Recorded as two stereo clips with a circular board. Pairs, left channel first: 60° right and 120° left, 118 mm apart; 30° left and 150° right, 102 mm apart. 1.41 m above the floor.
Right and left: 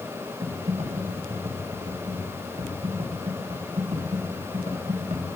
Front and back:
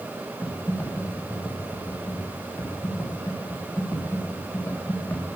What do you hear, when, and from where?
0.4 s typing on a keyboard: 95° left, 1.7 m